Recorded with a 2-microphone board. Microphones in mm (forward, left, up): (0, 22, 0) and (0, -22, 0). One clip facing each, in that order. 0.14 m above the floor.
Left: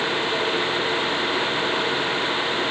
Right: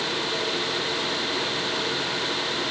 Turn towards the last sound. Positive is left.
No sound to turn to.